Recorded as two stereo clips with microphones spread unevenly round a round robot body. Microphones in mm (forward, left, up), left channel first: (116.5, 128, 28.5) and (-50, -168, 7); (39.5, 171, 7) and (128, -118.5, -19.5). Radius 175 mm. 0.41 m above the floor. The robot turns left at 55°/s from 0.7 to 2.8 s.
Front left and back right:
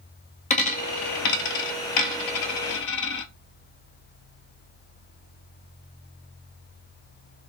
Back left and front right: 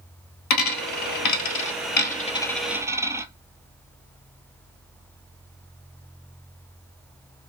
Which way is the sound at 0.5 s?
125° left.